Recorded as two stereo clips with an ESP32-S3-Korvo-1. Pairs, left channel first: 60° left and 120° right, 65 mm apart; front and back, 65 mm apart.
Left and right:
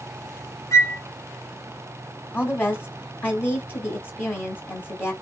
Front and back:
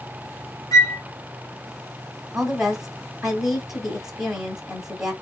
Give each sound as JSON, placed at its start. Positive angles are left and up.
{"t": 0.7, "sound": "a flute", "azimuth_deg": 25, "distance_m": 0.7}
{"t": 2.3, "sound": "a woman speaking", "azimuth_deg": 100, "distance_m": 1.3}